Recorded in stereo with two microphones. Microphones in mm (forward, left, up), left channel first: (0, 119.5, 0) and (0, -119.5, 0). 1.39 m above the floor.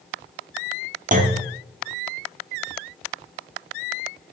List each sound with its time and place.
1.1 s a clunk: 35° right (ahead or behind), 1.1 m